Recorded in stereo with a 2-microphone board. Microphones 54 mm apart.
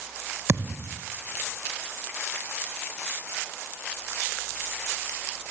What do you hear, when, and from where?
0.5 s a thud: 50° right (ahead or behind), 1.1 m